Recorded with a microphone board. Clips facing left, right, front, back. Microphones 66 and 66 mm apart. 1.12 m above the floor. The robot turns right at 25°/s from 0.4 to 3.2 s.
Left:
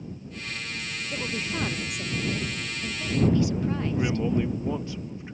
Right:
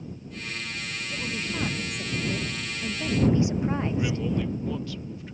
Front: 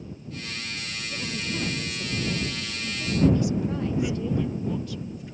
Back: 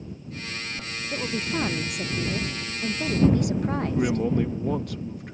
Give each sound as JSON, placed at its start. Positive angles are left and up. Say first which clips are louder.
{"t": 1.1, "sound": "a woman speaking", "louder": "left 1 dB, back 5 dB", "azimuth_deg": 155}
{"t": 3.9, "sound": "a man speaking", "louder": "left 2 dB, back 6 dB", "azimuth_deg": 155}